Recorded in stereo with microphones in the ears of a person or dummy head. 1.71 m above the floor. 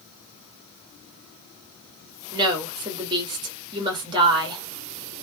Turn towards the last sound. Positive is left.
turn(degrees=-25)  # may be behind; listen again after turning